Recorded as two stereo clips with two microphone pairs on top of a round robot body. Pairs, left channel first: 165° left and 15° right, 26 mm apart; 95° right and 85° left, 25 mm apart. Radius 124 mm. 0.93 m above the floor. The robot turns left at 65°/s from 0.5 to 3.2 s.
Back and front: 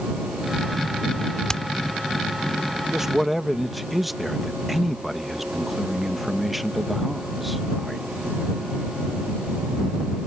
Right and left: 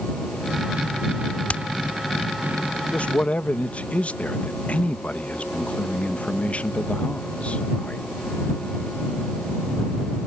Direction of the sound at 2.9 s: 80° right.